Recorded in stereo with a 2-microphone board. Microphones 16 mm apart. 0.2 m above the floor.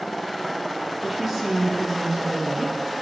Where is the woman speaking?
Centre (ahead or behind), 3 m.